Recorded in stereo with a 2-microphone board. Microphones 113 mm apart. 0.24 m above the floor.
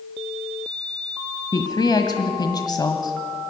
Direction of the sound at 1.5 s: 35° left (ahead or behind).